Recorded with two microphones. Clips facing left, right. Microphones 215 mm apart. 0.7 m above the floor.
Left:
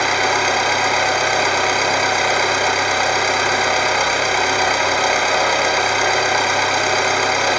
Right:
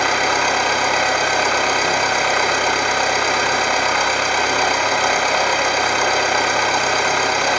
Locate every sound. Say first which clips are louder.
0.0 s an engine running: left 1 dB; 10° left (ahead or behind), 1.5 m